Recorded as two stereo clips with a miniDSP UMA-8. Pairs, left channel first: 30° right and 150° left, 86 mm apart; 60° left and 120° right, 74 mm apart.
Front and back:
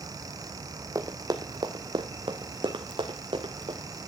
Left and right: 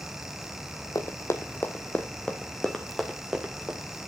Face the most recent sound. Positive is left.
turn(degrees=160)